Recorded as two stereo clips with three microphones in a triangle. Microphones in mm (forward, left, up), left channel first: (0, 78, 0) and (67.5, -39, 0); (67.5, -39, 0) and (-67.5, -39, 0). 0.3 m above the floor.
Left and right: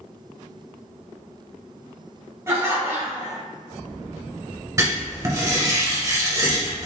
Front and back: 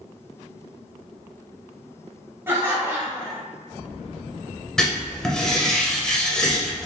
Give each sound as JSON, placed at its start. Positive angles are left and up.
{"t": 2.5, "sound": "laughter", "azimuth_deg": -115, "distance_m": 1.4}
{"t": 4.8, "sound": "writing", "azimuth_deg": -80, "distance_m": 0.9}